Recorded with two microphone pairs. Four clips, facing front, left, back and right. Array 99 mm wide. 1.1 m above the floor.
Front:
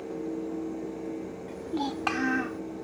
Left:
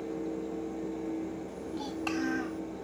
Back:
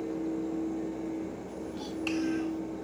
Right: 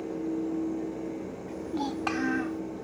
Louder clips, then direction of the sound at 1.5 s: Right 5 dB, front 6 dB; 45° right.